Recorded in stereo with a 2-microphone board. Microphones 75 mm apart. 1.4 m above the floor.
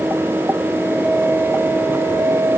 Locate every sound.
Only background noise.